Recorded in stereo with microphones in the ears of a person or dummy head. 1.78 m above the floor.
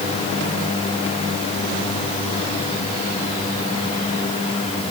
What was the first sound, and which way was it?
Only background noise.